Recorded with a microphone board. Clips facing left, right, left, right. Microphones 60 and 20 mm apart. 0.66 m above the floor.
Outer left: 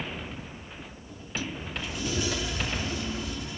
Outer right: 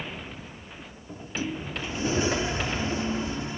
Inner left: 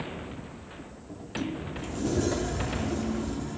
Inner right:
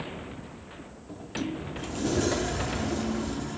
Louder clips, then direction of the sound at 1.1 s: Outer right 4 dB, inner right 1 dB; 30° right (ahead or behind).